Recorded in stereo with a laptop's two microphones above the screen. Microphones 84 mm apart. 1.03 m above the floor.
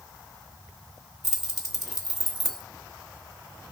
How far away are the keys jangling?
About 0.9 m.